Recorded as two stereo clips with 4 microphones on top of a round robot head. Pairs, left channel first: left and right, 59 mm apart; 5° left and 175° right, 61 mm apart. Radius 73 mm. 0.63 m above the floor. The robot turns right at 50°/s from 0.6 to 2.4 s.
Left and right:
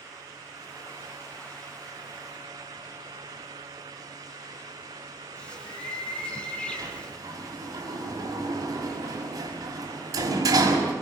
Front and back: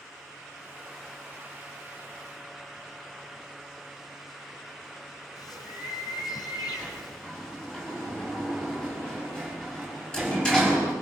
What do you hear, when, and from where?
5.4 s a bird: 15° left, 5 m
6.8 s a sliding door: 70° right, 5 m